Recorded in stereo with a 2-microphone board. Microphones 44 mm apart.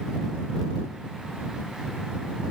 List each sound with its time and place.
Only background noise.